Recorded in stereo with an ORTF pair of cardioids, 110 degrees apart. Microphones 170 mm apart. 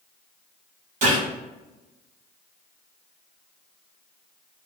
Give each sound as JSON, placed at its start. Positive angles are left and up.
{"t": 1.0, "sound": "a gunshot", "azimuth_deg": -50, "distance_m": 1.6}